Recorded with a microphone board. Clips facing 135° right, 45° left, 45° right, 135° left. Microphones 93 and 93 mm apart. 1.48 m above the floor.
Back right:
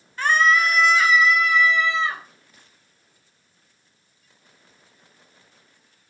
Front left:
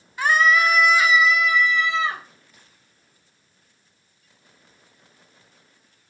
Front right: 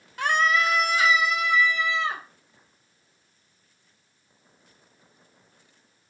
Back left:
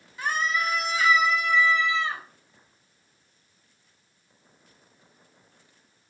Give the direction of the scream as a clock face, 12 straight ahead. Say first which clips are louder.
Front left 1 dB, front right 5 dB; 1 o'clock.